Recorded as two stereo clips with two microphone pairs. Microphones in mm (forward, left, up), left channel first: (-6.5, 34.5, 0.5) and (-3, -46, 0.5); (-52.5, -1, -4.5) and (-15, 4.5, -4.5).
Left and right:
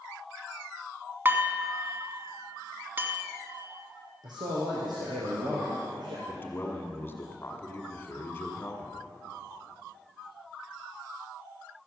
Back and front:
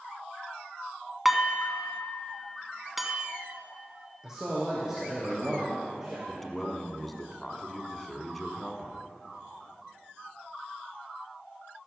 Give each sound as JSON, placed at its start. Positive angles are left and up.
{"t": 1.2, "sound": "dishes clattering", "azimuth_deg": -80, "distance_m": 1.0}
{"t": 4.2, "sound": "a man speaking", "azimuth_deg": -65, "distance_m": 3.0}
{"t": 6.3, "sound": "a man speaking", "azimuth_deg": 105, "distance_m": 1.3}